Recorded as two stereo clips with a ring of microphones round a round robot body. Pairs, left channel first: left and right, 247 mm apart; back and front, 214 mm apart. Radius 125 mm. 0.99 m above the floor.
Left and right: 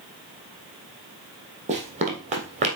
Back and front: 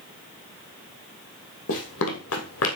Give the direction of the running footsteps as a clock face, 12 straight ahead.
5 o'clock.